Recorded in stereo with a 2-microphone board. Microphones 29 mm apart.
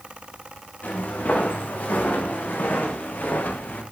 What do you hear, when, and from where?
0.8 s footsteps: 70° left (ahead or behind), 5.5 m; by 3.8 s 85° left, 4 m